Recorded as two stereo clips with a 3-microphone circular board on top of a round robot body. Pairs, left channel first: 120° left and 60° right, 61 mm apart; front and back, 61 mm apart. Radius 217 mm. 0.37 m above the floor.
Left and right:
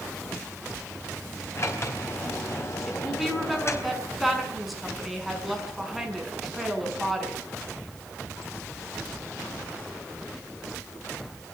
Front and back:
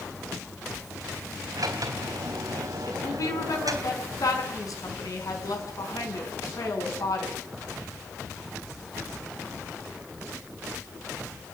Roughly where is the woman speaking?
Ahead left.